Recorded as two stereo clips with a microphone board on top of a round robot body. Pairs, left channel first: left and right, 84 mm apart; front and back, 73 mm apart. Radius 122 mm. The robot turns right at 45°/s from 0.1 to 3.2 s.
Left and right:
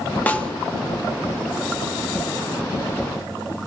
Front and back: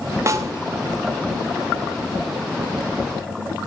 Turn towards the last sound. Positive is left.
turn(degrees=-75)